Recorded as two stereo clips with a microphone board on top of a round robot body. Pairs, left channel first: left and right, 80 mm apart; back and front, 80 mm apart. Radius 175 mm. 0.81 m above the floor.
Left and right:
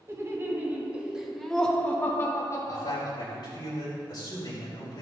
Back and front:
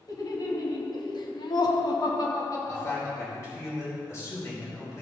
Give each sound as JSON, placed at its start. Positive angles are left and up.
{"t": 0.1, "sound": "laughter", "azimuth_deg": -145, "distance_m": 2.5}
{"t": 2.6, "sound": "a man speaking", "azimuth_deg": 125, "distance_m": 4.5}